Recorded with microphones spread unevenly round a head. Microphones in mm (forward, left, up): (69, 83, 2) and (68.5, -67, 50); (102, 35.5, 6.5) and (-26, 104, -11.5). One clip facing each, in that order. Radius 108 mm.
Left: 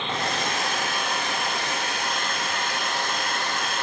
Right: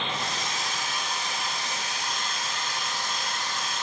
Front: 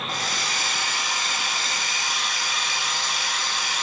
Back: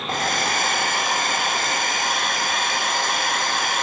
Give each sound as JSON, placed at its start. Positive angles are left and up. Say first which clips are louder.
{"t": 0.1, "sound": "a hair dryer", "louder": "left 5 dB, back 12 dB", "azimuth_deg": 115, "distance_m": 0.7}